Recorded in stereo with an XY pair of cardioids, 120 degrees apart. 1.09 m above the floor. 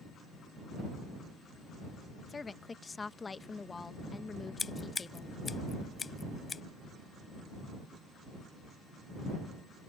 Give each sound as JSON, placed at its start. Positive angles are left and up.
{"t": 2.3, "sound": "a woman speaking", "azimuth_deg": 25}
{"t": 4.6, "sound": "scissors", "azimuth_deg": 30}